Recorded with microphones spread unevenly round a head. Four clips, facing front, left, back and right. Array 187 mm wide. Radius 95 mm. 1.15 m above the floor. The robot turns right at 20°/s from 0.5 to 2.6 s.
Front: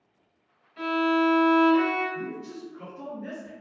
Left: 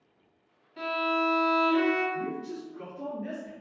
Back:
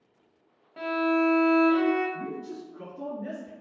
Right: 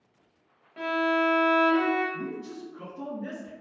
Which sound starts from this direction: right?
A man speaking, at 2.1 s.